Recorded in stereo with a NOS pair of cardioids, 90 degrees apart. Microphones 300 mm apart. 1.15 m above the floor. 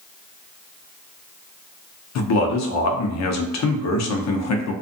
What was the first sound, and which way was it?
A man speaking, 65° left.